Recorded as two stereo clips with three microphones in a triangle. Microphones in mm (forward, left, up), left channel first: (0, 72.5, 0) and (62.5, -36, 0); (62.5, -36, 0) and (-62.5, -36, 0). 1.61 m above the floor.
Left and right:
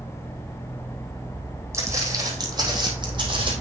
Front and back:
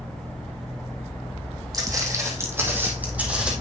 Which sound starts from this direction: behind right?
Footsteps, at 1.7 s.